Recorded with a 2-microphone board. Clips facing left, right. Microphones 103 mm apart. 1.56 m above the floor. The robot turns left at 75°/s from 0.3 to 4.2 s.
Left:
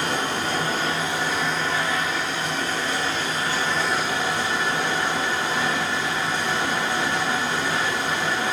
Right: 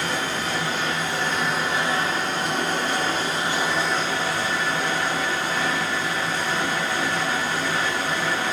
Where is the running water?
85° left, 1.2 m; by 8.5 s 155° left, 1.2 m.